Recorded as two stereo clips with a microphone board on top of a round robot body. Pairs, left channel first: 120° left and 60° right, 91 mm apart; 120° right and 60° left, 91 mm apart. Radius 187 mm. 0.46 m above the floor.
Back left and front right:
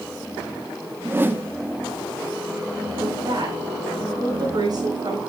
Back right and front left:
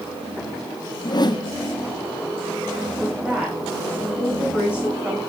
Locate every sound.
1.0 s a whoosh: 120° right, 1.2 m
3.0 s a woman speaking: 20° right, 6 m